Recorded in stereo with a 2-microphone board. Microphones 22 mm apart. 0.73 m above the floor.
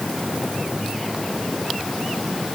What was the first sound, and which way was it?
Only background noise.